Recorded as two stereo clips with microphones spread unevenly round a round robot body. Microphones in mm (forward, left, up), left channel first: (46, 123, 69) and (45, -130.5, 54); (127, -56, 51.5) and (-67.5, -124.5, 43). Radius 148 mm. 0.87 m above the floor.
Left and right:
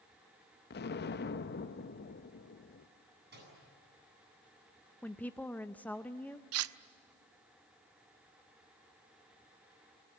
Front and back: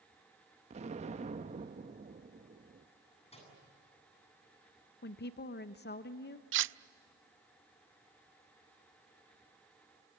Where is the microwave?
40° right, 9 m.